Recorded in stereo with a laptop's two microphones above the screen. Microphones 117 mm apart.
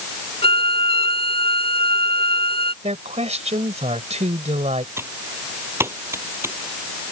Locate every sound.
0.4 s a violin: 60° left (ahead or behind)
2.8 s a woman speaking: 70° right (ahead or behind)
5.0 s typing on a keyboard: 20° right (ahead or behind)